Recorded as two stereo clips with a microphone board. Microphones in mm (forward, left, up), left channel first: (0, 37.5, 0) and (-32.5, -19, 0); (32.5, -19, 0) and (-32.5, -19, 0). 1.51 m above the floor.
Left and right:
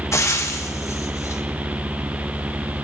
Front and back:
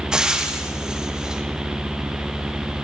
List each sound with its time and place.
0.1 s frying: 105° left, 1.0 m